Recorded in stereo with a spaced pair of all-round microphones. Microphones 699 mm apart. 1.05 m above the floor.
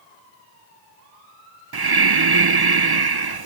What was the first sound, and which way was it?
Breathing, 35° right (ahead or behind).